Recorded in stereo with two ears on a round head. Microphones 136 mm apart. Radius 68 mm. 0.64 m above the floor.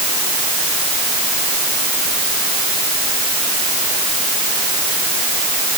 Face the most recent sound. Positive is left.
No sound to turn to.